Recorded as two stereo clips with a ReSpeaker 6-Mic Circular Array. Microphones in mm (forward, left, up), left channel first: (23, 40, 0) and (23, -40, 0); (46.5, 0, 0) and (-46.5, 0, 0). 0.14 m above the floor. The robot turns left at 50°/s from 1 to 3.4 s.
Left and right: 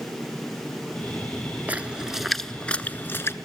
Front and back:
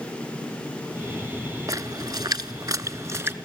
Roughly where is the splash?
Behind right.